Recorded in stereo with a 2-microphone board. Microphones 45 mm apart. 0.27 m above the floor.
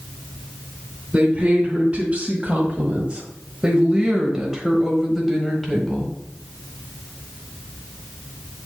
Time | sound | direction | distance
1.1 | a woman speaking | 30° right (ahead or behind) | 1.9 m